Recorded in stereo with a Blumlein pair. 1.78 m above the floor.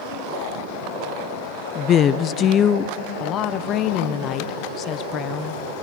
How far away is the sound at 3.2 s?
About 1.2 m.